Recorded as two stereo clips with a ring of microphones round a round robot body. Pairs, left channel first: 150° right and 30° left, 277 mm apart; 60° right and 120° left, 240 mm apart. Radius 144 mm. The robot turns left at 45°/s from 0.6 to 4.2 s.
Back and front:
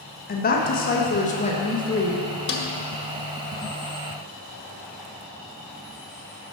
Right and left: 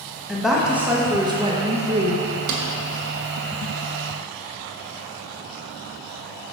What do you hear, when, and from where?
0.3 s a woman speaking: 155° right, 1.0 m; by 2.2 s 135° left, 1.0 m
2.5 s a snare drum: 155° left, 0.9 m; by 2.7 s 145° left, 0.9 m